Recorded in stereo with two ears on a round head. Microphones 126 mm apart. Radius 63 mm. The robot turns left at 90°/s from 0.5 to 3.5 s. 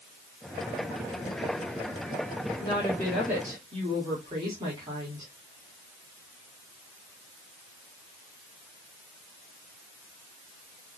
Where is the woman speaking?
50° left, 2.5 m; by 5.3 s 30° right, 2.5 m.